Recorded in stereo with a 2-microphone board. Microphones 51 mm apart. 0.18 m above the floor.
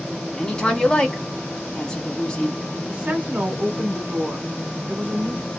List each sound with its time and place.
0.4 s a woman speaking: 15° left (ahead or behind), 1.5 m
2.9 s a woman speaking: 30° right (ahead or behind), 1.8 m